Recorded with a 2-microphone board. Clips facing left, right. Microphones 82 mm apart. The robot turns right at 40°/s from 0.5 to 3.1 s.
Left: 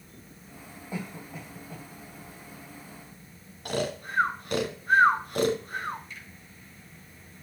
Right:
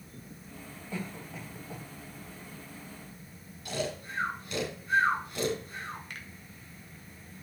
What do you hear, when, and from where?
0.9 s a cough: 20° left (ahead or behind), 2.5 m; by 1.9 s 15° right (ahead or behind), 2.5 m
3.6 s snoring: 55° left (ahead or behind), 1.2 m
6.1 s a finger snap: 65° right (ahead or behind), 1.4 m